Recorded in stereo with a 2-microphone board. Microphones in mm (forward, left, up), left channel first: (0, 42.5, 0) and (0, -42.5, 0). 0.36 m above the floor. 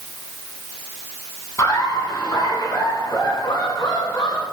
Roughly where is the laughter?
Left.